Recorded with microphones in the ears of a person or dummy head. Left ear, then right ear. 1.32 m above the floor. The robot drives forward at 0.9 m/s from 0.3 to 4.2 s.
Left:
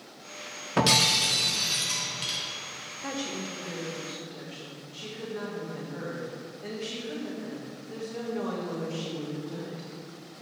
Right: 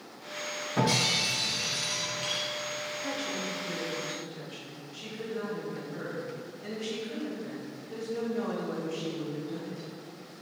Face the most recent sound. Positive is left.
turn(degrees=15)  # may be behind; listen again after turning